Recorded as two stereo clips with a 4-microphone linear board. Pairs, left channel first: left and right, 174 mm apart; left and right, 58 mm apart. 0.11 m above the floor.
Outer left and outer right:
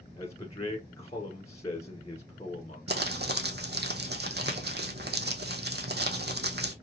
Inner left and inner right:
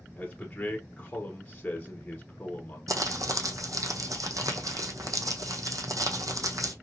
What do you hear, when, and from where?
0.2 s a man speaking: 20° left (ahead or behind), 1.2 m
2.9 s crumpling: 75° right (ahead or behind), 0.8 m